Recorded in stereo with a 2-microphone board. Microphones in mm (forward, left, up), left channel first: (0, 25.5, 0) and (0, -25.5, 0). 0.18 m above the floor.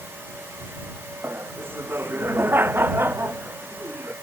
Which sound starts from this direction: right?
Laughter, at 1.2 s.